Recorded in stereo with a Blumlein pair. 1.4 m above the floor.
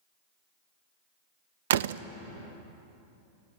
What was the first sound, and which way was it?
A door slam, 60° right.